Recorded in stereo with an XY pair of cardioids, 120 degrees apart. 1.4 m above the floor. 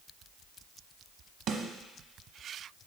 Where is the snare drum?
60° right, 1.1 m.